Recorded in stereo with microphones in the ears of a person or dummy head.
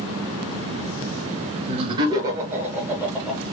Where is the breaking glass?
No breaking glass in this recording.